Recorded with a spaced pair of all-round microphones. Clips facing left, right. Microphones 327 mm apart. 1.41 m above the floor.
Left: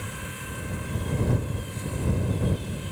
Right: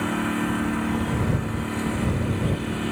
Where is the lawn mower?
75° right (ahead or behind).